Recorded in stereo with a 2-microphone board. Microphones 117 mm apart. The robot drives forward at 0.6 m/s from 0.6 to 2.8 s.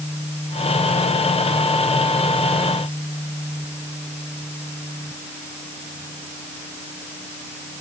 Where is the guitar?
I don't hear a guitar.